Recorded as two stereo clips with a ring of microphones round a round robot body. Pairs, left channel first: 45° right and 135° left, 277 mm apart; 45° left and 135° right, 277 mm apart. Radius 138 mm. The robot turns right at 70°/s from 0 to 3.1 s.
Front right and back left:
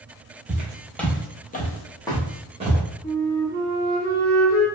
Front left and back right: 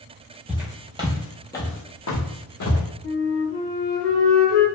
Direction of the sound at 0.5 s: 145° left.